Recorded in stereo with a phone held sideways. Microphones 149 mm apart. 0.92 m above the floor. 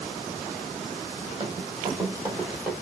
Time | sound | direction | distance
1.4 | running footsteps | 35° right (ahead or behind) | 1.7 m